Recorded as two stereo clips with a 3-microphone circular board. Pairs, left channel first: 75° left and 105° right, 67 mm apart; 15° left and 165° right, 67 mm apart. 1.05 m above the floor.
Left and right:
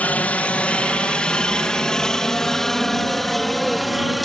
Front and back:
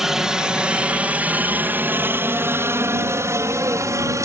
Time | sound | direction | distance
0.0 | a helicopter | 120° left | ?